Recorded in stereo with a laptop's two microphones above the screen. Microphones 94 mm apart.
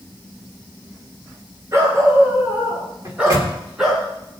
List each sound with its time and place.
1.7 s a dog barking: 30° right (ahead or behind), 4 m; by 4.0 s centre (ahead or behind), 3.5 m
3.0 s a microwave: 35° right (ahead or behind), 2.5 m